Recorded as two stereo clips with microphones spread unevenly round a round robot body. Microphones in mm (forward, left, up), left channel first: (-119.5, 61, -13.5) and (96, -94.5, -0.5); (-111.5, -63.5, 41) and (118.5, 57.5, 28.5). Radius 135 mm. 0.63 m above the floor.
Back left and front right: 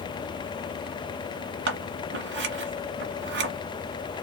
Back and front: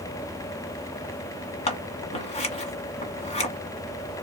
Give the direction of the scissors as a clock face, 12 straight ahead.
3 o'clock.